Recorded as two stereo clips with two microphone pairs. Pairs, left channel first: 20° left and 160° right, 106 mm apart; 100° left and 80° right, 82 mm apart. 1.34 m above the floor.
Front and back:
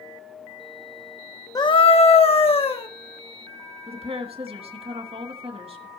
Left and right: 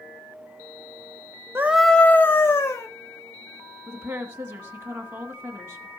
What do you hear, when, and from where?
1.6 s a scream: 25° right, 0.6 m; by 2.9 s 45° left, 2 m
3.9 s a woman speaking: 135° right, 3 m